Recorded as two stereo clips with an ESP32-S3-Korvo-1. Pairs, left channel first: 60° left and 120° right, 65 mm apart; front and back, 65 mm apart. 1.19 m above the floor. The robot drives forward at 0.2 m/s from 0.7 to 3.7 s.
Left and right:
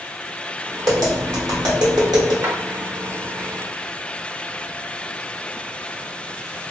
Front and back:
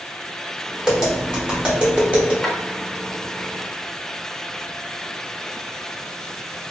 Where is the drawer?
80° right, 0.8 m.